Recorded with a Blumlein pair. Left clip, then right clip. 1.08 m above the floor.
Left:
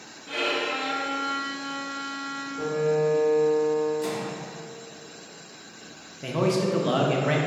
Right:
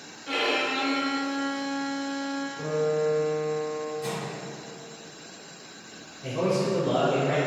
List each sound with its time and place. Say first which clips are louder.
0.3 s a violin: right 1 dB; 50° right, 0.6 m
2.6 s a piano: left 2 dB; 35° left, 1.0 m
4.0 s a microwave: left 3 dB; 25° left, 1.0 m
6.2 s a man speaking: left 1 dB; 35° left, 0.6 m